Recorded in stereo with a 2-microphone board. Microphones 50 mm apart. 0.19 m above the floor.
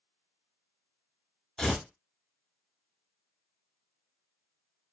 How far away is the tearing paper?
About 0.8 m.